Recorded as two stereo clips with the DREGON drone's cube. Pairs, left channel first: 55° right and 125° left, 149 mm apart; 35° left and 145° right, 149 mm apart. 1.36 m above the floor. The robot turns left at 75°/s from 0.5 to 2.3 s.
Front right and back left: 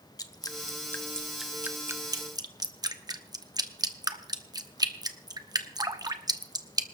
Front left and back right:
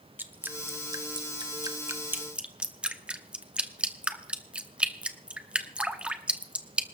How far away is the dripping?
About 0.9 m.